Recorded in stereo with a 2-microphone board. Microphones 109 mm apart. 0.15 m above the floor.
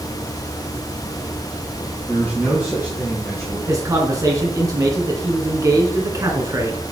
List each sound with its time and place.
2.1 s a man speaking: 5° right (ahead or behind), 3.5 m; by 3.6 s centre (ahead or behind), 3 m
3.7 s a man speaking: 30° right (ahead or behind), 1.8 m